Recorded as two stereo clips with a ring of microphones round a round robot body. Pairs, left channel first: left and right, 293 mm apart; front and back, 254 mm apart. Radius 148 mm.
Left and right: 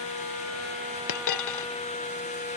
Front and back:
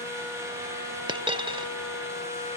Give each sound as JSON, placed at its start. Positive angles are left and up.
{"t": 1.1, "sound": "a dropped coin", "azimuth_deg": 110}